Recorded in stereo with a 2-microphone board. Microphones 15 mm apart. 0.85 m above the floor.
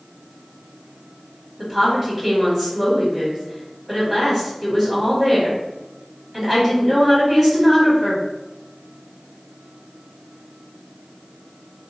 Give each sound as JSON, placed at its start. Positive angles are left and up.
{"t": 1.6, "sound": "a woman speaking", "side_deg": -15, "distance_m": 1.8}